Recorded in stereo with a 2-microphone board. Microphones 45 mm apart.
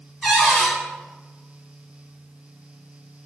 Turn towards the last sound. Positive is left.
turn(degrees=5)  # may be behind; listen again after turning